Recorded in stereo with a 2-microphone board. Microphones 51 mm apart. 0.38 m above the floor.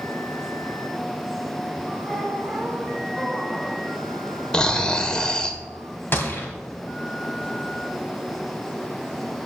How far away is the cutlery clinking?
I don't hear cutlery clinking.